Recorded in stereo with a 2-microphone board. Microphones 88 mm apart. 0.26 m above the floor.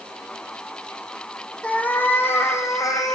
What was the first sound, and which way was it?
A cat meowing, 15° left (ahead or behind).